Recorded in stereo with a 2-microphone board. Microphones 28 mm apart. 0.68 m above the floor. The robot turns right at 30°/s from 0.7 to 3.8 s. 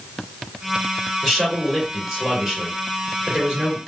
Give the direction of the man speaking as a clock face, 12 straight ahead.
6 o'clock.